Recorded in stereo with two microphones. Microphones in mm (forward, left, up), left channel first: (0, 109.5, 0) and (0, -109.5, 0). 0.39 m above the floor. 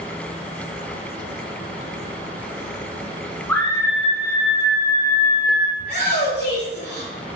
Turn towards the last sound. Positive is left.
turn(degrees=35)  # may be behind; listen again after turning